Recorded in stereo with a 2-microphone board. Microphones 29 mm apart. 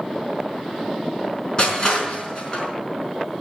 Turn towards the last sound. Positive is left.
turn(degrees=35)  # may be behind; listen again after turning